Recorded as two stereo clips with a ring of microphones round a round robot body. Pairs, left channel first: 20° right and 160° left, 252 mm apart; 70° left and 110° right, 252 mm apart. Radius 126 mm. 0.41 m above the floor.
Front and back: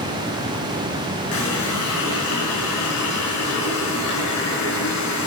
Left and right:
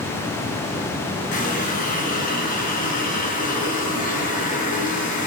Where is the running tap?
10° left, 4 m.